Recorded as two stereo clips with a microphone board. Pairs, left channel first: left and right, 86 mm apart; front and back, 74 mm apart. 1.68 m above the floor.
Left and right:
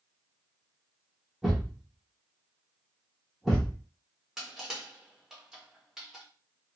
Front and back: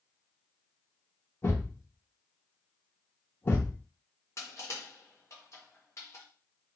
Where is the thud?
10° right, 1.1 m.